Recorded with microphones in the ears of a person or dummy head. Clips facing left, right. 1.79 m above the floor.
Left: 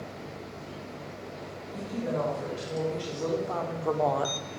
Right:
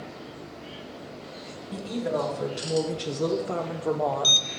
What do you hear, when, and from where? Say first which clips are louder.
1.7 s a woman speaking: right 3 dB; 75° right (ahead or behind), 1.6 m; by 4.3 s 15° left (ahead or behind), 0.6 m